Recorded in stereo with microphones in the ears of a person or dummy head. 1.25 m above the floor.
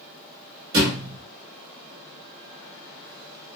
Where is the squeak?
No squeak in this recording.